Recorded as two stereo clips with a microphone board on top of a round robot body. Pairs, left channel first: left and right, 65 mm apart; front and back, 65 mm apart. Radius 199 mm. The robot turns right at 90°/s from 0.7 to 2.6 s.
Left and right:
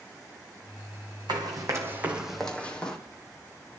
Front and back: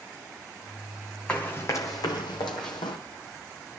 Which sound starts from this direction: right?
Running footsteps, at 1.3 s.